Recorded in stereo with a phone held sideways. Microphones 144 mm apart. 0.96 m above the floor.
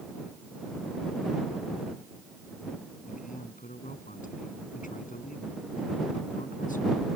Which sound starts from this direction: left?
A man speaking, at 3.1 s.